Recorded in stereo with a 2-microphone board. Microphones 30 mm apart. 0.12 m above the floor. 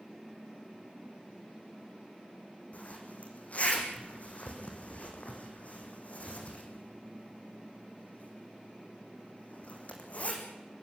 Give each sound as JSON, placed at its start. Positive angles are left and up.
{"t": 2.7, "sound": "a zipper", "side_deg": 55, "distance_m": 4.0}